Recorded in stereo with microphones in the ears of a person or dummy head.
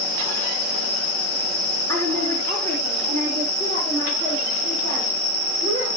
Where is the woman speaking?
15° left (ahead or behind), 3 m; by 5.9 s 20° left (ahead or behind), 8 m.